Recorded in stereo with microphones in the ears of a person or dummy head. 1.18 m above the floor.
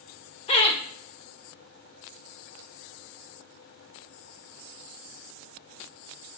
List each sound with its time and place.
0.5 s laughter: 30° left (ahead or behind), 1.4 m